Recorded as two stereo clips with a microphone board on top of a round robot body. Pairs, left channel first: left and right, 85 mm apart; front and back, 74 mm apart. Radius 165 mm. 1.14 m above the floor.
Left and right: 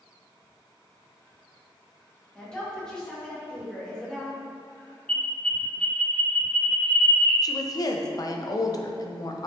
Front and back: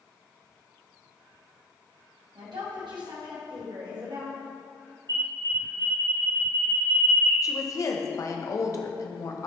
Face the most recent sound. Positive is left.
turn(degrees=45)